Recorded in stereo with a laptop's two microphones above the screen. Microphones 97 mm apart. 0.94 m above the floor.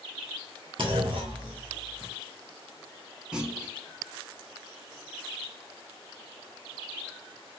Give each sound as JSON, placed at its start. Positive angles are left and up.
{"t": 0.8, "sound": "a clunk", "side_deg": -55, "distance_m": 1.1}
{"t": 3.3, "sound": "a clunk", "side_deg": -10, "distance_m": 0.8}